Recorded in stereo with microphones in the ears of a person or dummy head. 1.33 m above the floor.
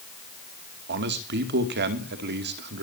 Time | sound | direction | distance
0.9 | a man speaking | 50° right (ahead or behind) | 2.5 m